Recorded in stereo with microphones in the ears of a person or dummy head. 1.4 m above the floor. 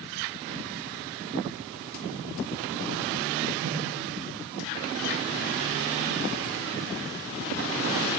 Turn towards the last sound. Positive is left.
turn(degrees=-85)